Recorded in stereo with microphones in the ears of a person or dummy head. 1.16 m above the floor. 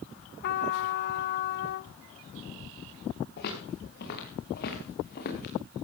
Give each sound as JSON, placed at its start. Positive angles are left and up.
{"t": 0.4, "sound": "a trumpet", "side_deg": 55, "distance_m": 1.0}
{"t": 3.4, "sound": "footsteps", "side_deg": 65, "distance_m": 7.5}